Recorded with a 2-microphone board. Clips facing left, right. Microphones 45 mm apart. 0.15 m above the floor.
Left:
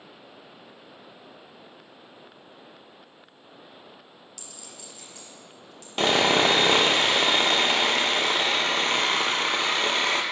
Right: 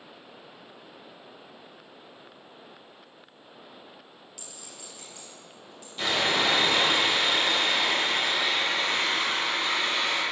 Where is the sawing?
80° left, 0.6 m.